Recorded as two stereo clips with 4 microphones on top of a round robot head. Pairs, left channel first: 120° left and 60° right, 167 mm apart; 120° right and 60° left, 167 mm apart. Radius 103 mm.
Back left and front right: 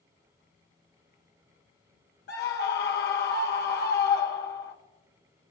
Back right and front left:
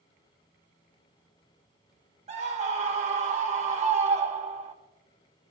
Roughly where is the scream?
Left.